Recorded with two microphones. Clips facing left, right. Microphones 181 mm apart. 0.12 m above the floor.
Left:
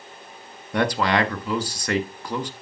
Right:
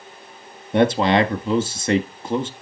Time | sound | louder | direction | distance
0.7 | a man speaking | right 5 dB | 25° right (ahead or behind) | 1.4 m